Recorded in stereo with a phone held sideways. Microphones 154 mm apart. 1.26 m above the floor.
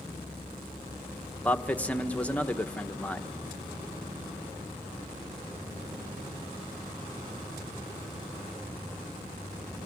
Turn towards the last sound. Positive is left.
turn(degrees=10)  # may be behind; listen again after turning